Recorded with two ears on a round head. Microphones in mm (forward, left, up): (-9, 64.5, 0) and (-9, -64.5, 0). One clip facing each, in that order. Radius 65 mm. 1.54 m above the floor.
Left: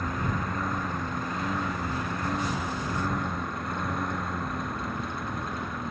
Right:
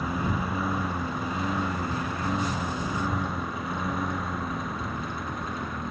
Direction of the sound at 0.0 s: 5° right (ahead or behind).